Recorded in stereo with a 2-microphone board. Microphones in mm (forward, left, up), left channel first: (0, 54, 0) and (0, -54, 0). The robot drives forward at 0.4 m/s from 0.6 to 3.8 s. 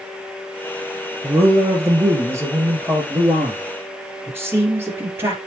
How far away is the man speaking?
About 3 m.